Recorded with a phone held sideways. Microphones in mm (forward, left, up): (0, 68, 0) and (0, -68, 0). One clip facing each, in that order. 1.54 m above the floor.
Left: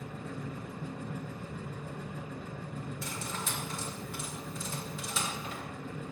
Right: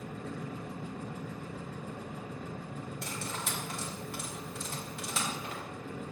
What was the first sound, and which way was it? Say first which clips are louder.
A machine running: right 1 dB; 65° right (ahead or behind).